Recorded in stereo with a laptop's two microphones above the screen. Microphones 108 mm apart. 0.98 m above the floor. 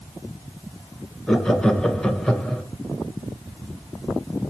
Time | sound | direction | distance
1.3 | laughter | 5° left (ahead or behind) | 0.7 m